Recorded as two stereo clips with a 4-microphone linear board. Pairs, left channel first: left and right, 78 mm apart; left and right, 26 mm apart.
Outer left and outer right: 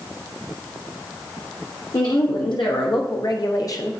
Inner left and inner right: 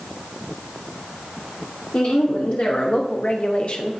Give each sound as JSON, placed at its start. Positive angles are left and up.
{"t": 1.9, "sound": "a woman speaking", "side_deg": 70, "distance_m": 1.2}